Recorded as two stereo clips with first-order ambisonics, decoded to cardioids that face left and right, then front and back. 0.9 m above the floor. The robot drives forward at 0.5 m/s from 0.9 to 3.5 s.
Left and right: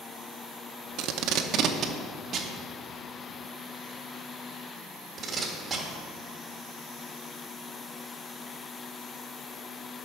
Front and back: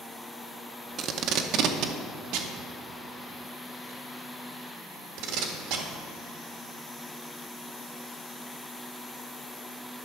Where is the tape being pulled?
125° right, 0.7 m; by 5.8 s 160° right, 1.7 m.